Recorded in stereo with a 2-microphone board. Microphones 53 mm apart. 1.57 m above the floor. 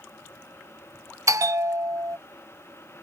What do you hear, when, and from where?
1.3 s a bell: 75° right (ahead or behind)